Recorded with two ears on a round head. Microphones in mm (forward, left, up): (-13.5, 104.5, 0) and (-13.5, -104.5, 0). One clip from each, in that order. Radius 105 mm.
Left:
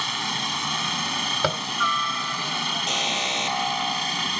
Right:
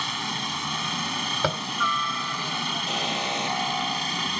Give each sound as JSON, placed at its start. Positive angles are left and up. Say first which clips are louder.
{"t": 0.0, "sound": "a helicopter", "louder": "left 2 dB", "side_deg": 20}
{"t": 1.4, "sound": "tapping", "louder": "left 2 dB", "side_deg": 15}
{"t": 2.9, "sound": "an alarm", "louder": "left 3 dB", "side_deg": 45}